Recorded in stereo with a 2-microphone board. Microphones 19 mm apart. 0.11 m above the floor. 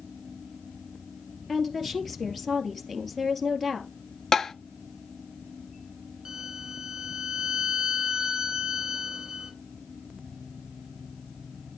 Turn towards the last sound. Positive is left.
turn(degrees=-40)  # may be behind; listen again after turning